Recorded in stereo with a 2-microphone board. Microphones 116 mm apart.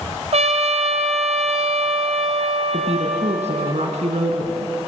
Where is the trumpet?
65° right (ahead or behind), 1.6 m.